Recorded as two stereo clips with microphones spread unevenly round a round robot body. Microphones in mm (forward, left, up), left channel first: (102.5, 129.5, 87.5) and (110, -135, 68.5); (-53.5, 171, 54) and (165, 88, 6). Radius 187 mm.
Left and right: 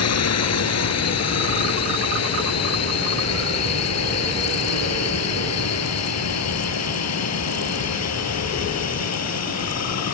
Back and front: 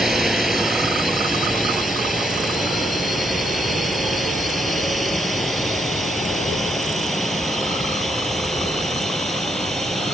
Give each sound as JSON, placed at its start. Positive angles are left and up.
{"t": 0.0, "sound": "a drone", "azimuth_deg": 70}